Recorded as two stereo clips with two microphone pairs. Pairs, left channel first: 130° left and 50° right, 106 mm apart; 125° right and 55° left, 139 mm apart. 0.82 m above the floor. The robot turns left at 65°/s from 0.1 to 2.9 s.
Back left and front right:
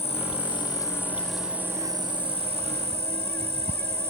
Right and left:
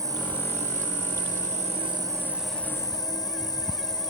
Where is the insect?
120° left; by 4.1 s 60° right.